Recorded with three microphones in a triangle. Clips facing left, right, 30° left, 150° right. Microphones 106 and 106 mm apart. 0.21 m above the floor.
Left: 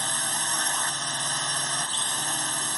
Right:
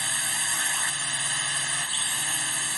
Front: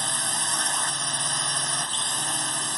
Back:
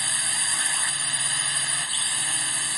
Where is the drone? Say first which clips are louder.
Left 3 dB, front 3 dB; 55° left.